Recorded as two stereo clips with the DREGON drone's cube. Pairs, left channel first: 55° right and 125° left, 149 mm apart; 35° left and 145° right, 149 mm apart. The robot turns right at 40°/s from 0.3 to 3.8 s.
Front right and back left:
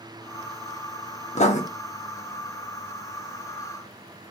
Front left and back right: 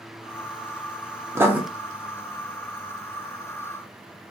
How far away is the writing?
About 0.6 m.